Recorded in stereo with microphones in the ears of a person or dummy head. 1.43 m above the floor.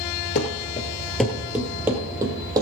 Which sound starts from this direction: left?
Running footsteps, at 0.3 s.